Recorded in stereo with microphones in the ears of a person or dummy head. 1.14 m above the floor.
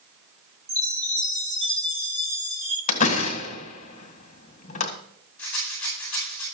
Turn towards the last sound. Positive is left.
turn(degrees=10)  # may be behind; listen again after turning